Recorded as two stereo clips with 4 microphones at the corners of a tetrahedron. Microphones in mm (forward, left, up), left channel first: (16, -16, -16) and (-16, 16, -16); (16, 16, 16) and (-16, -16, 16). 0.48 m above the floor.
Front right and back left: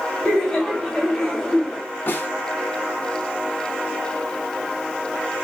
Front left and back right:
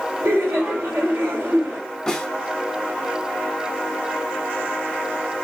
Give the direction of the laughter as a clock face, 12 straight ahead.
4 o'clock.